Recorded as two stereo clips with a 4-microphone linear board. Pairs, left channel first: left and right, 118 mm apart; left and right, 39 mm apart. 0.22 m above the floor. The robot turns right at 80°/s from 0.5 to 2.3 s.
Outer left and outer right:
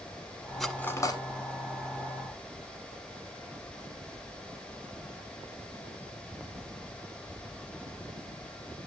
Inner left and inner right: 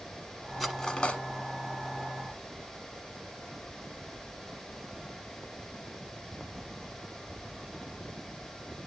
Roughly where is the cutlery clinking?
Centre.